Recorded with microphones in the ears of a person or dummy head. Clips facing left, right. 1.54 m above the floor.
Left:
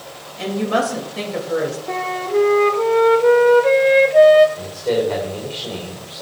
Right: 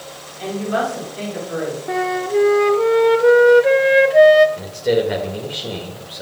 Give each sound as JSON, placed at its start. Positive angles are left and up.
{"t": 0.4, "sound": "a woman speaking", "side_deg": 85, "distance_m": 3.0}
{"t": 1.9, "sound": "a flute", "side_deg": -5, "distance_m": 0.6}
{"t": 4.6, "sound": "a man speaking", "side_deg": -20, "distance_m": 2.5}